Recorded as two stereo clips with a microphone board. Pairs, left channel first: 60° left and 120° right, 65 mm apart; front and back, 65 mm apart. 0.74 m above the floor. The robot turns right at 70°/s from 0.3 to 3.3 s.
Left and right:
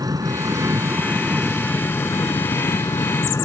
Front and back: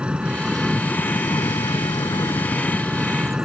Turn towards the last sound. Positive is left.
turn(degrees=100)